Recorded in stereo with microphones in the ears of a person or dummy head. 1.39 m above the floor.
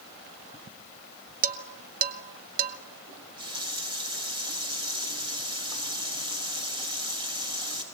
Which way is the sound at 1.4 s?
45° right (ahead or behind).